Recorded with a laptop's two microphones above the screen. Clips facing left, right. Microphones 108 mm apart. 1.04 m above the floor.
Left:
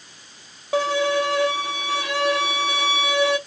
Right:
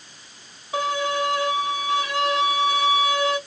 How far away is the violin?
About 1.1 m.